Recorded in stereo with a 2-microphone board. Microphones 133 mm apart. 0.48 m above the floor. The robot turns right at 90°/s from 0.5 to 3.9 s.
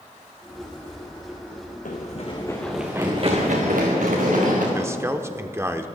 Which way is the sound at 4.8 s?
20° right (ahead or behind).